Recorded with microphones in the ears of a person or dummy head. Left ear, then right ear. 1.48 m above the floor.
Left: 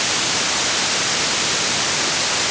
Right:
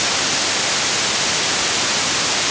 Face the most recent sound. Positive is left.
No sound to turn to.